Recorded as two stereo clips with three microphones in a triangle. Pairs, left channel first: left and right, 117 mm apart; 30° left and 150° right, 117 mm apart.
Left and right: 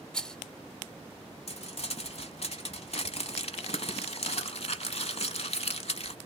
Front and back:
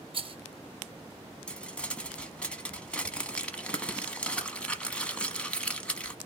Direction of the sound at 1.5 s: 110° left.